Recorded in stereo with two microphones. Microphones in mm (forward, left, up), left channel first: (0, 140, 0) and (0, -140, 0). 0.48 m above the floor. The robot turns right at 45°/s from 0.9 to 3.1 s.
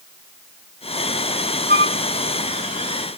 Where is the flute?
35° right (ahead or behind), 0.6 m; by 2.0 s 45° right (ahead or behind), 0.6 m.